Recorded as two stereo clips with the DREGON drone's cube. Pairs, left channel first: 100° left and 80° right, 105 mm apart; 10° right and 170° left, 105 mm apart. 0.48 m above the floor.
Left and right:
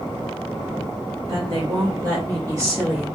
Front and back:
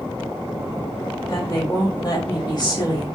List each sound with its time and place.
1.3 s a woman speaking: 60° right, 1.6 m; by 3.1 s 15° right, 1.1 m